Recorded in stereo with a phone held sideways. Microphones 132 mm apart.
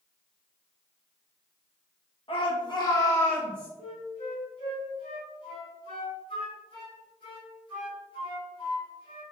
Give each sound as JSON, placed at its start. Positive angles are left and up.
{"t": 2.3, "sound": "a shout", "side_deg": 45, "distance_m": 1.0}
{"t": 3.8, "sound": "a flute", "side_deg": 40, "distance_m": 1.3}